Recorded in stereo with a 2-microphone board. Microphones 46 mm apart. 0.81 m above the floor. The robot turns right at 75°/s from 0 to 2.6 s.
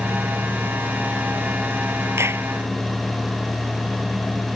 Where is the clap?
75° right (ahead or behind); by 2.5 s 55° right (ahead or behind).